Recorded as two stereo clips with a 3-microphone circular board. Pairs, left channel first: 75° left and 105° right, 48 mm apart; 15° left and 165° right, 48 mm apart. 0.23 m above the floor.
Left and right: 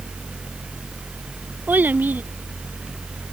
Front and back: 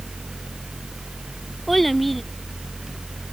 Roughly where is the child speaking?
Right.